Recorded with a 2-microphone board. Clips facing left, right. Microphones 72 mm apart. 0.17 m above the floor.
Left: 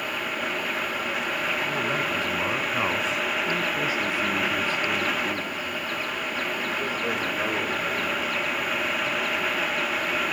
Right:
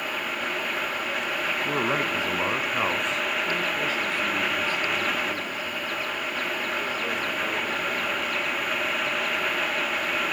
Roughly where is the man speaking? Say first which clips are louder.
Right 1 dB; right.